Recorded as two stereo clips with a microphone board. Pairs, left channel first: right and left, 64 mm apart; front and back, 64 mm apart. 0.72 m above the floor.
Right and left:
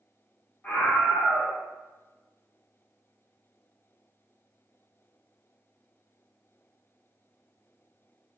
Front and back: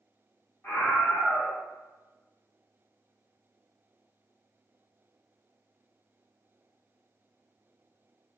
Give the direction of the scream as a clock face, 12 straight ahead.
1 o'clock.